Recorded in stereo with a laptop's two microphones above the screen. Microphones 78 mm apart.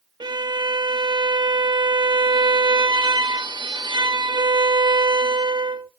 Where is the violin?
70° right (ahead or behind), 0.5 m.